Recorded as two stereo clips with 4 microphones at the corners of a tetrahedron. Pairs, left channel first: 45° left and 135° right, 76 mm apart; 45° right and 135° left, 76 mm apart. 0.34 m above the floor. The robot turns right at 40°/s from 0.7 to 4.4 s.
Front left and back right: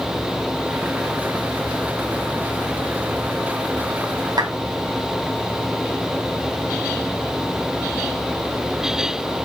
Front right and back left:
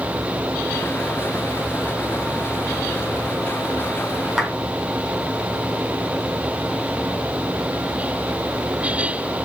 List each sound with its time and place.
4.4 s a clap: 140° right, 2 m